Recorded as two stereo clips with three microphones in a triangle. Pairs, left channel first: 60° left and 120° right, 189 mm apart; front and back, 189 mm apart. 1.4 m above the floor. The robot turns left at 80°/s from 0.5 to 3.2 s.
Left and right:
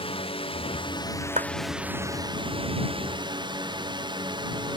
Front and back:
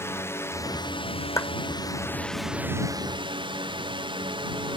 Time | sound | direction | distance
0.0 | a drone | 60° left | ?
1.4 | a clap | 70° right | ?